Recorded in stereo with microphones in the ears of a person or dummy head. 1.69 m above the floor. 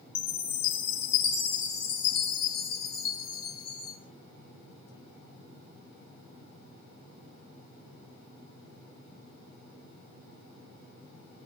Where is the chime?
60° left (ahead or behind), 4 m.